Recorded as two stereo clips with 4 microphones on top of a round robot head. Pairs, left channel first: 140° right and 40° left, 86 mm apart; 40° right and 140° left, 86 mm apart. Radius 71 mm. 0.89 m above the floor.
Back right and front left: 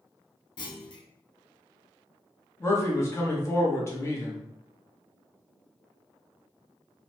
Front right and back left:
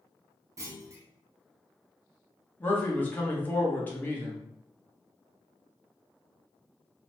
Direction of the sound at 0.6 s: 170° right.